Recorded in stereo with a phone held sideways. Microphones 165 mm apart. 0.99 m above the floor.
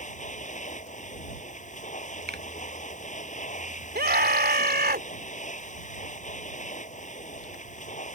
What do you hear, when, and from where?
0.0 s a machine running: 50° left (ahead or behind)
2.3 s a finger snap: 85° right
4.0 s a scream: 75° right (ahead or behind)